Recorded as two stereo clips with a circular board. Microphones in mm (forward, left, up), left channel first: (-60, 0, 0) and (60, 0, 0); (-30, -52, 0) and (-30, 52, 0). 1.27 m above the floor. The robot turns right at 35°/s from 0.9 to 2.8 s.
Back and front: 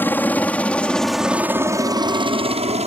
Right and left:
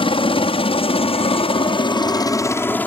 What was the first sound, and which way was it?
A helicopter, 110° right.